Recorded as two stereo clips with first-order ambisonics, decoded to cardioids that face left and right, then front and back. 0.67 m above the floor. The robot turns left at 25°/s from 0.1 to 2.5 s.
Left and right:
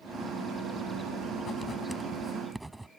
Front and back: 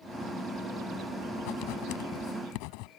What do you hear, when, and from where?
1.4 s writing: 25° left; by 2.9 s 5° right